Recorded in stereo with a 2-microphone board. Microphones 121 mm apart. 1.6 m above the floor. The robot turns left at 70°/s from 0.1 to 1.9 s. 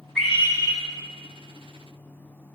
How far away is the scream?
About 5.5 m.